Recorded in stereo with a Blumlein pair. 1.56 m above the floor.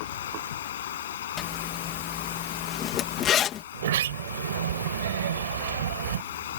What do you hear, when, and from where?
0.0 s running water: 60° left
1.4 s a zipper: 30° left
3.7 s a sliding door: 60° right